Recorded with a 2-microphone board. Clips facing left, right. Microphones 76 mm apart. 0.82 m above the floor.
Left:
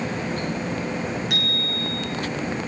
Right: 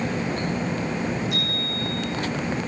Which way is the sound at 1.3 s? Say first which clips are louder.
Even; 75° left (ahead or behind).